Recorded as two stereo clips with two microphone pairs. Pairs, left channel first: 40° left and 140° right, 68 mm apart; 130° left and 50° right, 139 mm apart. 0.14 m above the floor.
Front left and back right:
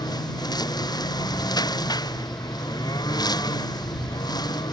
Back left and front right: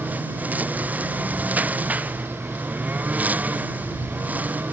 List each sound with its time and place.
0.0 s a lawn mower: 30° left